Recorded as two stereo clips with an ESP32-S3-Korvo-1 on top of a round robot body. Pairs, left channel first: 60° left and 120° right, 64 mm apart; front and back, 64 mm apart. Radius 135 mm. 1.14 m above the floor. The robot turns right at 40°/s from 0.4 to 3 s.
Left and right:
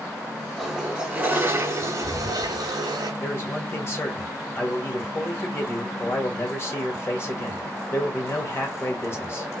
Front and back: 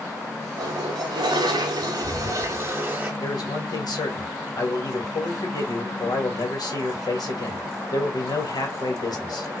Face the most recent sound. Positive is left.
turn(degrees=10)